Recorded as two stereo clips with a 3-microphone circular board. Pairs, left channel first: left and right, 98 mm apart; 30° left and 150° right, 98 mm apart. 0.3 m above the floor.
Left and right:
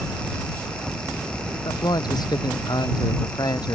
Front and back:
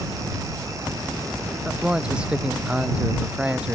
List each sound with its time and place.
1.6 s a man speaking: 130° left